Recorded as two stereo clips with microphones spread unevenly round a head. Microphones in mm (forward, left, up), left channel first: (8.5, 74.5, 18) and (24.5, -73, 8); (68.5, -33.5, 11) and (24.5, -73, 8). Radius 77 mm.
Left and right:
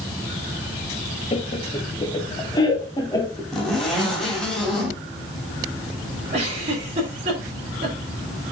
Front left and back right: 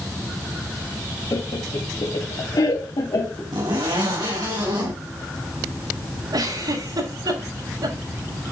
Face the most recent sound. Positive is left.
turn(degrees=-135)